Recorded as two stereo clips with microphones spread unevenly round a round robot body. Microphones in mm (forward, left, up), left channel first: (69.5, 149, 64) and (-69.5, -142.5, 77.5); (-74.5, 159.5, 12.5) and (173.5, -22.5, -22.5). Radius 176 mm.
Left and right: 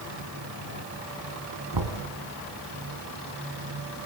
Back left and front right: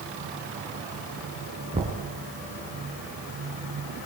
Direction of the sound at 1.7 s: 110° right.